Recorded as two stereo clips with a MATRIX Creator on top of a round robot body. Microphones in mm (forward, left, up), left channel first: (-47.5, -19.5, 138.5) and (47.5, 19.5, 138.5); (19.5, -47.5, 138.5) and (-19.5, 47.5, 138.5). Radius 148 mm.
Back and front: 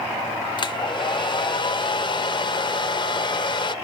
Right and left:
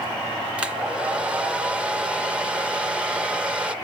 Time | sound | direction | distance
0.6 | a hair dryer | 170° right | 0.7 m